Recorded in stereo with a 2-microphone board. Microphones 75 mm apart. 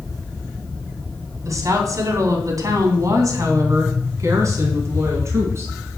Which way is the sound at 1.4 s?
50° right (ahead or behind).